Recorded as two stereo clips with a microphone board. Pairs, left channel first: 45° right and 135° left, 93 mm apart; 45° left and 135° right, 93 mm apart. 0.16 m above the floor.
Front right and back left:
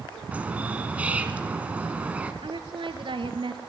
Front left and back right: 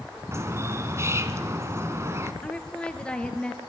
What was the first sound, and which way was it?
A bird, 160° right.